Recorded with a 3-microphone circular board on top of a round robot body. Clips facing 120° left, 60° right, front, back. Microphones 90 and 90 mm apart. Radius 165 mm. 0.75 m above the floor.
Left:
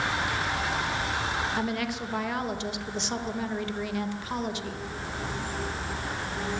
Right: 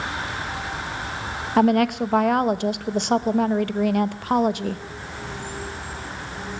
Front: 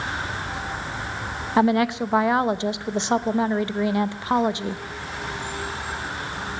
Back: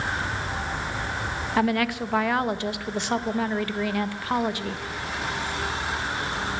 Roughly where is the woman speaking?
Ahead right.